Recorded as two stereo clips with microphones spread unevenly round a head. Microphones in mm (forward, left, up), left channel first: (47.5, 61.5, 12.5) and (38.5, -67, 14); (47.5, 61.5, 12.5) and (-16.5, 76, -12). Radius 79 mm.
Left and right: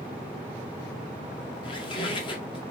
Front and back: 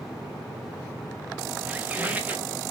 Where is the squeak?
85° left, 0.7 m.